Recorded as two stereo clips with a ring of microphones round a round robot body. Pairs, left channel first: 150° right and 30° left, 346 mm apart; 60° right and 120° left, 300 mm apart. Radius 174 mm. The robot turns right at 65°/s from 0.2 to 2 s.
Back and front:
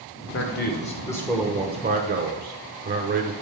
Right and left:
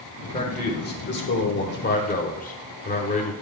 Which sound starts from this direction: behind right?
A man speaking, at 0.3 s.